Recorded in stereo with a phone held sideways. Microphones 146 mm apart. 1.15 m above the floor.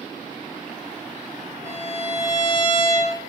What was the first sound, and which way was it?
A violin, 15° right (ahead or behind).